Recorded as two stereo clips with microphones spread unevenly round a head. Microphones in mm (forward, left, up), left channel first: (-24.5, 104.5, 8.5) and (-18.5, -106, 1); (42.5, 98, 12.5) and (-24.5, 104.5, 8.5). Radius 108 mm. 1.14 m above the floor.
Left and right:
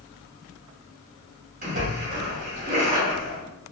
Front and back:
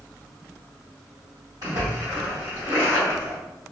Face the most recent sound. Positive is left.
turn(degrees=-135)